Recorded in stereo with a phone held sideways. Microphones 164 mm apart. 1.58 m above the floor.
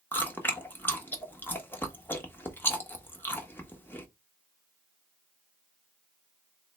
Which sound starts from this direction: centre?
Chewing, at 0.1 s.